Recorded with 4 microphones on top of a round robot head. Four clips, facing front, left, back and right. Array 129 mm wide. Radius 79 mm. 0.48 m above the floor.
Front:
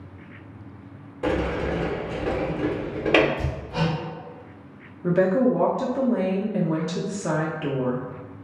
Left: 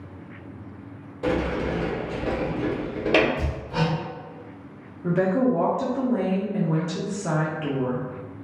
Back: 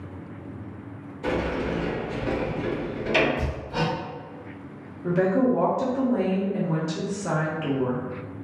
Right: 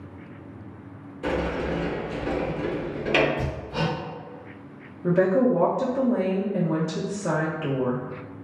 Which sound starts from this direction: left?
Hammering, at 3.4 s.